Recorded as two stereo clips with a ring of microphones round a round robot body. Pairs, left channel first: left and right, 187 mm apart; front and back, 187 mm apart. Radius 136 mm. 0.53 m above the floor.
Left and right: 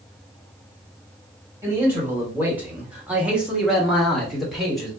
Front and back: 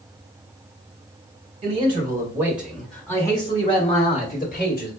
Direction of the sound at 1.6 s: 160° right.